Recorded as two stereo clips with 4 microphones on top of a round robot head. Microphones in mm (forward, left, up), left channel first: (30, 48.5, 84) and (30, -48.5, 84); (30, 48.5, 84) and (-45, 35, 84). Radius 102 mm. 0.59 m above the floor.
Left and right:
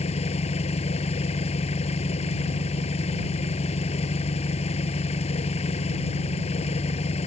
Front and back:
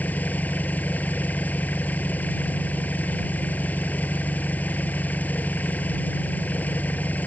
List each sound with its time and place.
0.0 s an engine running: 80° left